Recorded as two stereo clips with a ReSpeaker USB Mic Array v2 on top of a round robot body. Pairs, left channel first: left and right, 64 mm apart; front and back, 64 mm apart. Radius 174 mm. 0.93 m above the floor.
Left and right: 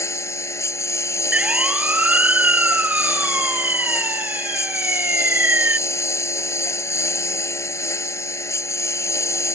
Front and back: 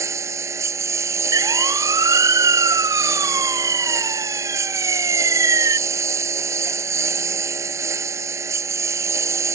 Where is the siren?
160° right; by 5.8 s 150° right.